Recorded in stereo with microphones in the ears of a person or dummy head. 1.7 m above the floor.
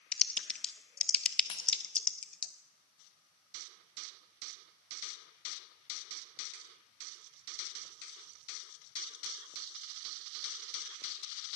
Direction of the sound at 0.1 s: 5° left (ahead or behind).